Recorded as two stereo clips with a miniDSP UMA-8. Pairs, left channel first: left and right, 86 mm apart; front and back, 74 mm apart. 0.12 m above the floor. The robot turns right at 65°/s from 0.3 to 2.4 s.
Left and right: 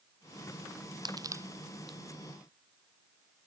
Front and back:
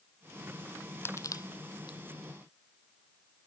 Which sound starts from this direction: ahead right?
Crushing, at 1.1 s.